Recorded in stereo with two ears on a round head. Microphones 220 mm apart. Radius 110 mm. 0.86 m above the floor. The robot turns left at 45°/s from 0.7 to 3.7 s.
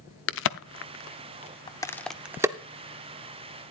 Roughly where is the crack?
Left.